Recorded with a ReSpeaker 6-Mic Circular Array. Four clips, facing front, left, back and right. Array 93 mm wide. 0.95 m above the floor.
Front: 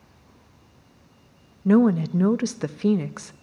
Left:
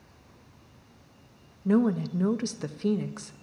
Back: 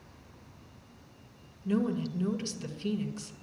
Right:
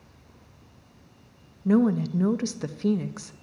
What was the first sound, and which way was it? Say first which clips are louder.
A woman speaking: right 3 dB, front 12 dB; 5° right.